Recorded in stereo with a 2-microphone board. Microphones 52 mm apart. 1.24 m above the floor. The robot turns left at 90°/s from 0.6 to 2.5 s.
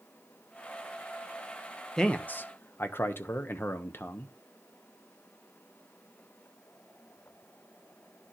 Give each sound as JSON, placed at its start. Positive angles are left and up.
{"t": 2.0, "sound": "a man speaking", "azimuth_deg": 165, "distance_m": 0.7}